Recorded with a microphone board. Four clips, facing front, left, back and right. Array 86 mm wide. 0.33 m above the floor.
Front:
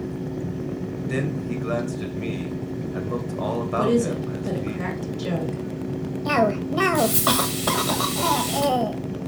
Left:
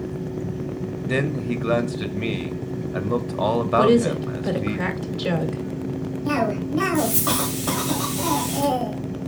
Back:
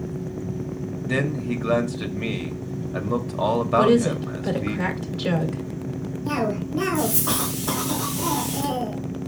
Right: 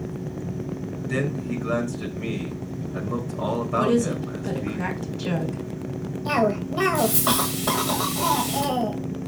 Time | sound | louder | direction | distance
1.1 | a man speaking | left 3 dB, back 3 dB | 120° left | 1.3 m
3.8 | a woman speaking | left 4 dB, back 2 dB | 115° left | 1.8 m
6.2 | a cough | right 1 dB, front 4 dB | 15° right | 1.3 m